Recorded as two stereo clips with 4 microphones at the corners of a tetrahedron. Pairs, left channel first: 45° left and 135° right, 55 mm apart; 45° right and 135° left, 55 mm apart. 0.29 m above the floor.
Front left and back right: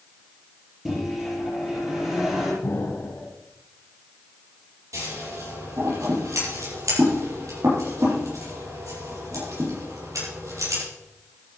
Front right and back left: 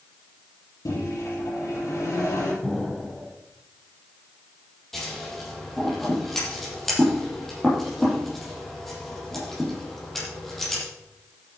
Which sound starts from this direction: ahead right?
A microwave, at 0.8 s.